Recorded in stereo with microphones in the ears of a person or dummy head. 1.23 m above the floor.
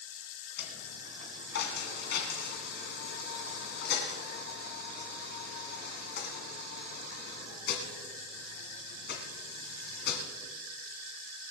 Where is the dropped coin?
60° left (ahead or behind), 2 m.